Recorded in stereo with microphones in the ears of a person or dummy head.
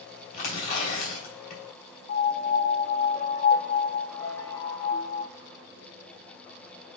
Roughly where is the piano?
Left.